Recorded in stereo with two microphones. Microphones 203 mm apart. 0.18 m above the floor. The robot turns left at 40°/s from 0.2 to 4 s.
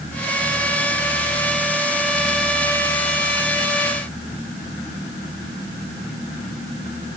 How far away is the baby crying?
No baby crying in this recording.